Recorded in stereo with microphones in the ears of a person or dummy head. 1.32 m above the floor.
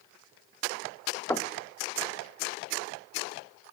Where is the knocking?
15° left (ahead or behind), 0.7 m.